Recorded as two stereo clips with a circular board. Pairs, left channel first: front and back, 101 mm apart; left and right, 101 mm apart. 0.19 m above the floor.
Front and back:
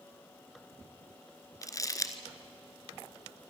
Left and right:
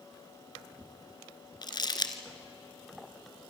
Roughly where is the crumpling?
Ahead left.